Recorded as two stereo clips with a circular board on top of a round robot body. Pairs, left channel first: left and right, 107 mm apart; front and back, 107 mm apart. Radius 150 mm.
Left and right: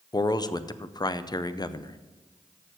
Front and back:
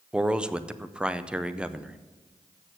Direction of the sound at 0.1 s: 105° left.